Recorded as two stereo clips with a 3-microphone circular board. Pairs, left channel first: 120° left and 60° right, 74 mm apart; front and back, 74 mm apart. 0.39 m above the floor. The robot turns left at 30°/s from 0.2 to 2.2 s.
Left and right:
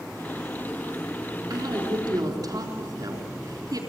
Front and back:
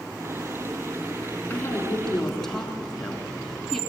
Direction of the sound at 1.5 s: 65° right.